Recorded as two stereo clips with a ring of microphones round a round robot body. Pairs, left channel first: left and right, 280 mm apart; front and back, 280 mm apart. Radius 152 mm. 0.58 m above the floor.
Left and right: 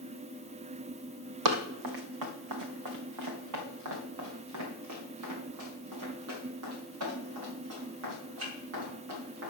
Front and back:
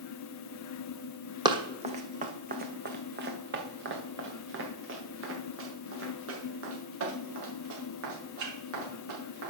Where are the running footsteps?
105° right, 1.2 m; by 9.5 s 140° right, 5.5 m.